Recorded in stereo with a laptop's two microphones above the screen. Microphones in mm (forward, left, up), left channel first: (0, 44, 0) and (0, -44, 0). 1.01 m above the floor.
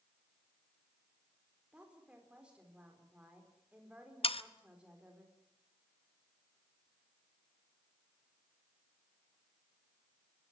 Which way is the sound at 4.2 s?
80° left.